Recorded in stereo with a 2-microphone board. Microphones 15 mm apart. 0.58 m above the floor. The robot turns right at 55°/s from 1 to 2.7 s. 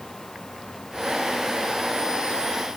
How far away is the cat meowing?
I don't hear a cat meowing.